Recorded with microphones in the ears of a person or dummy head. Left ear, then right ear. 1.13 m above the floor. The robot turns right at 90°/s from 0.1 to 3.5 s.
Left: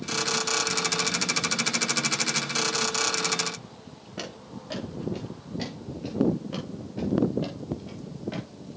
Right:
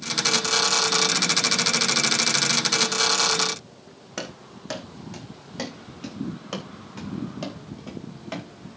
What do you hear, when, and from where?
4.2 s running footsteps: 70° right (ahead or behind), 4 m; by 8.5 s 40° right (ahead or behind), 4 m